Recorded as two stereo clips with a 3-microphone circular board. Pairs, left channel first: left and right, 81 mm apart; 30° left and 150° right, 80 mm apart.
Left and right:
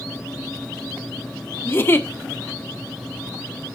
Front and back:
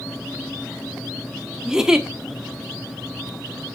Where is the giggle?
135° left, 1.3 m.